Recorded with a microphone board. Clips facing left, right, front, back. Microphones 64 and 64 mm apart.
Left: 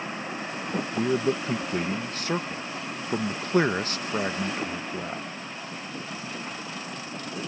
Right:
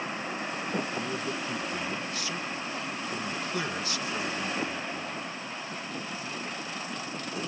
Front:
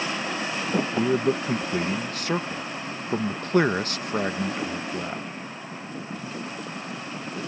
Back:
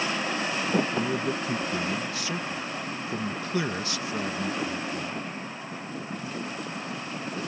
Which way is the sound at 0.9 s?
45° left.